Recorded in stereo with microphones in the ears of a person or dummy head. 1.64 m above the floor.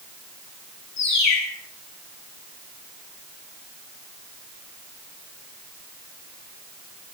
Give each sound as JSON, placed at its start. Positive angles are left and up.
{"t": 1.0, "sound": "a bird", "side_deg": 55, "distance_m": 2.5}